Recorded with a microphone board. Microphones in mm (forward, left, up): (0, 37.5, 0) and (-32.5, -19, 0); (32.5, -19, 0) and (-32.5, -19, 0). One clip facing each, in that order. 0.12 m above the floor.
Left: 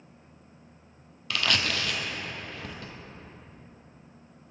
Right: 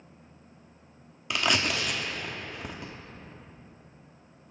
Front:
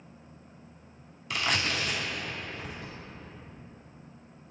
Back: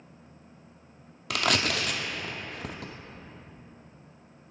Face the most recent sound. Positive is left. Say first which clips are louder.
# right 1 dB, back 3 dB
turn(degrees=170)